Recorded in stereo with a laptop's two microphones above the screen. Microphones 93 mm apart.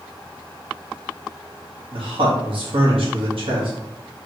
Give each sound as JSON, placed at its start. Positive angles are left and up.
{"t": 1.9, "sound": "a man speaking", "side_deg": -75, "distance_m": 1.0}